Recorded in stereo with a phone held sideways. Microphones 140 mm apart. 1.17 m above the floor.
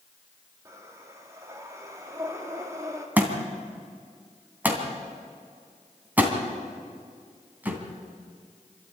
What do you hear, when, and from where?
0.7 s breathing: 20° right (ahead or behind), 2.5 m
3.2 s a thud: 10° right (ahead or behind), 2.5 m